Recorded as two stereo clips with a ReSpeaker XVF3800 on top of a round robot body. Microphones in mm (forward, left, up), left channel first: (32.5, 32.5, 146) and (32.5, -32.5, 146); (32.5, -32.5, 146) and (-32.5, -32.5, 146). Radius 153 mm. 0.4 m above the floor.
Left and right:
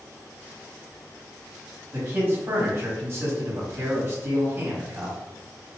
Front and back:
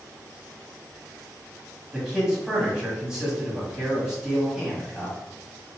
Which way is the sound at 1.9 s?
100° right.